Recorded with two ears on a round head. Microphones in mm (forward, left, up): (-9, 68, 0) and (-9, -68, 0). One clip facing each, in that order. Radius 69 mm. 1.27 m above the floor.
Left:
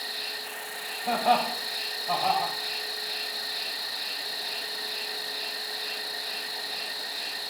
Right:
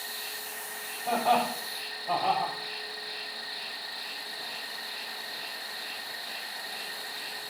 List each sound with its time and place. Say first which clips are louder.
0.0 s an insect: left 3 dB; 50° left (ahead or behind), 0.8 m
1.1 s laughter: left 1 dB; 5° right (ahead or behind), 4.5 m